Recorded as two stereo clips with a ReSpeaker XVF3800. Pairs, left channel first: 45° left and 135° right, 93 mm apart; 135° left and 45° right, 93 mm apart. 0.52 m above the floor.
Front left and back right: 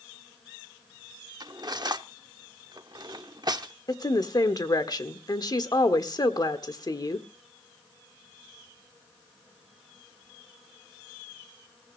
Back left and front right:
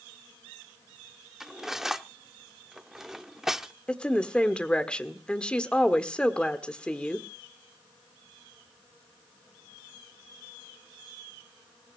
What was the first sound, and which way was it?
Cutlery clinking, 130° right.